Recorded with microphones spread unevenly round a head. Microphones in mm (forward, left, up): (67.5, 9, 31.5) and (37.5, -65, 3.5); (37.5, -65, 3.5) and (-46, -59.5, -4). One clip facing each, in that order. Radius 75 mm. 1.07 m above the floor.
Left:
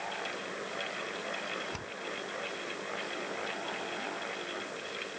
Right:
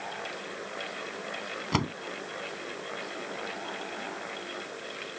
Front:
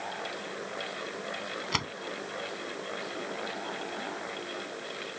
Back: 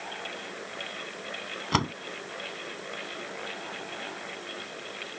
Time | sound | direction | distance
1.7 | a door slam | 135° right | ?